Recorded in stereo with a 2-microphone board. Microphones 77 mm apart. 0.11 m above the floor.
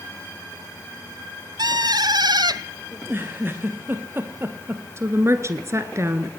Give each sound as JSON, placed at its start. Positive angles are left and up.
{"t": 1.6, "sound": "a bird", "side_deg": -60, "distance_m": 0.7}
{"t": 2.9, "sound": "a giggle", "side_deg": -30, "distance_m": 2.5}
{"t": 5.0, "sound": "a woman speaking", "side_deg": -35, "distance_m": 1.3}